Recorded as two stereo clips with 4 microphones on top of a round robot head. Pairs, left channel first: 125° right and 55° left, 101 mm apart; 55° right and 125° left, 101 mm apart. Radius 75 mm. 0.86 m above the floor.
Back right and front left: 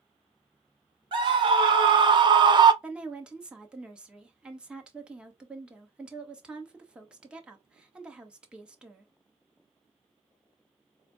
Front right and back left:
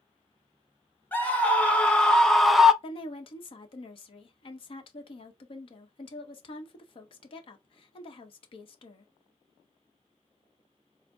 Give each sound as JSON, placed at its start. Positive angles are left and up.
{"t": 1.1, "sound": "a scream", "azimuth_deg": 20, "distance_m": 1.4}
{"t": 2.8, "sound": "a woman speaking", "azimuth_deg": -25, "distance_m": 1.0}